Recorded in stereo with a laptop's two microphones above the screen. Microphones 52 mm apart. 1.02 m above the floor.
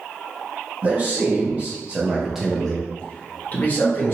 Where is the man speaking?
35° right (ahead or behind), 1.1 m; by 4.2 s 40° left (ahead or behind), 0.9 m.